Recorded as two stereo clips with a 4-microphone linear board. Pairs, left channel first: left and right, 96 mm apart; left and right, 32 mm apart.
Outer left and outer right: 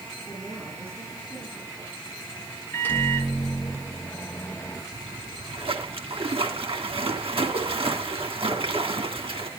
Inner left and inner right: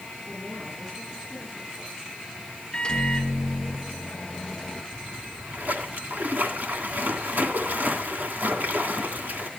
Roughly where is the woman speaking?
Centre.